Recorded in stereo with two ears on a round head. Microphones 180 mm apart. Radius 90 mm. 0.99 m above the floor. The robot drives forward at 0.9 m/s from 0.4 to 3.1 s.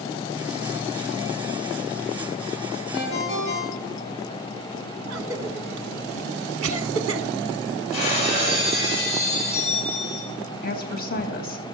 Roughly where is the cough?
Right.